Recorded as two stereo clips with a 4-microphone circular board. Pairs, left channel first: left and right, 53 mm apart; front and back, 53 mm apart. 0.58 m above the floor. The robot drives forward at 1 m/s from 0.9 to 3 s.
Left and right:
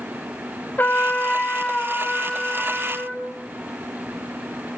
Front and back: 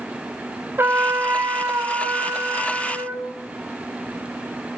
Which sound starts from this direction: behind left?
A trumpet, at 0.8 s.